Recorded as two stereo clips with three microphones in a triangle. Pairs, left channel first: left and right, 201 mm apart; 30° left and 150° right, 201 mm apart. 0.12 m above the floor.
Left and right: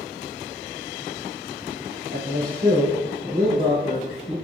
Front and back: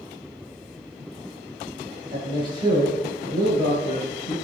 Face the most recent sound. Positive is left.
turn(degrees=-90)